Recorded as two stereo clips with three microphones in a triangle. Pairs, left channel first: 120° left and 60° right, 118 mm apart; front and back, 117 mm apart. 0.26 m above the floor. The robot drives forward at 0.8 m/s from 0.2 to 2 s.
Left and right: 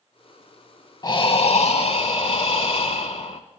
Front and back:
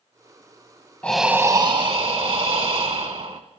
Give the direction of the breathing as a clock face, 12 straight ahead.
9 o'clock.